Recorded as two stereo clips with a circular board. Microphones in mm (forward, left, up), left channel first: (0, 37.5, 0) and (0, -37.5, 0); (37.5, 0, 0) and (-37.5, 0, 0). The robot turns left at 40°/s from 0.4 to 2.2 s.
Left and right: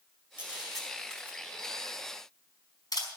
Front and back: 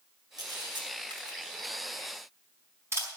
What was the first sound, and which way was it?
A camera shutter, 160° right.